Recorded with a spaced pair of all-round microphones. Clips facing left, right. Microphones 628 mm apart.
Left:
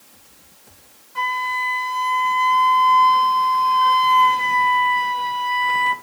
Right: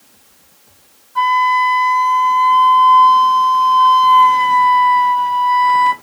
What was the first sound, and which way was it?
A flute, 50° left (ahead or behind).